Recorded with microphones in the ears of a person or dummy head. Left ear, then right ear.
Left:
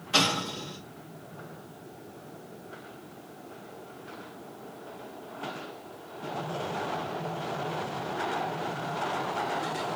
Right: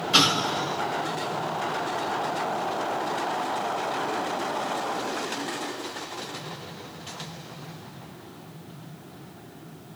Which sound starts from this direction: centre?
An explosion, at 0.1 s.